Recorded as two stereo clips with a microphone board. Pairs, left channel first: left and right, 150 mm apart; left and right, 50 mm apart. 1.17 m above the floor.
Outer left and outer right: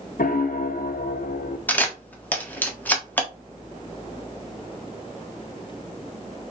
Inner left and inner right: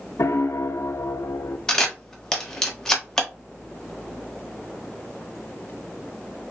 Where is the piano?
75° left (ahead or behind), 0.6 m.